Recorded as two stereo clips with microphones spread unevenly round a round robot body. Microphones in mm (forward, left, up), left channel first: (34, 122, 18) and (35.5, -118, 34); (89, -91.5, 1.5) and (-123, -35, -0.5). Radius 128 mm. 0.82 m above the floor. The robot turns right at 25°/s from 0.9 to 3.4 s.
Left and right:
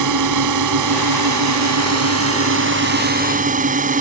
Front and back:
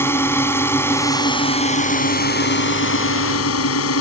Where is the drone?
95° right; by 4.0 s 30° right.